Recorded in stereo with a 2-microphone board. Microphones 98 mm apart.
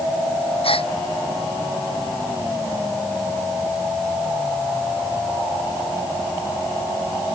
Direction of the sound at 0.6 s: 75° left (ahead or behind).